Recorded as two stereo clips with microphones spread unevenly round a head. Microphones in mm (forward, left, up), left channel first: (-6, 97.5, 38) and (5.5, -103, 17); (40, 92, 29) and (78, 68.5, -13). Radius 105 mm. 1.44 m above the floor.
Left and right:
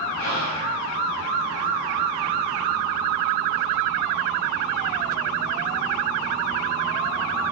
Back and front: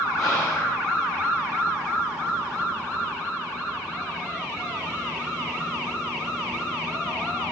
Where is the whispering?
135° left, 4.5 m.